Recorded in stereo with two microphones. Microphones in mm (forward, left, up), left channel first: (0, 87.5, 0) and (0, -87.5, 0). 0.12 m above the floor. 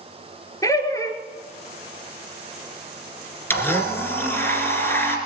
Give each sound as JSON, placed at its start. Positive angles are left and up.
{"t": 0.6, "sound": "laughter", "side_deg": 20, "distance_m": 1.7}
{"t": 3.5, "sound": "a blender", "side_deg": 10, "distance_m": 2.0}